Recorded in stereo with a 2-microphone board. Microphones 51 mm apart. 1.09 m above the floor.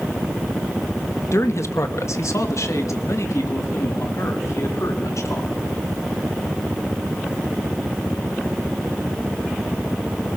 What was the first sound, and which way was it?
A man speaking, 65° left (ahead or behind).